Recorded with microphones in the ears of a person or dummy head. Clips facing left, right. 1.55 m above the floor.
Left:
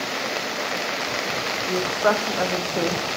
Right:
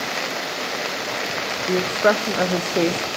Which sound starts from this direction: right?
A woman speaking, at 1.7 s.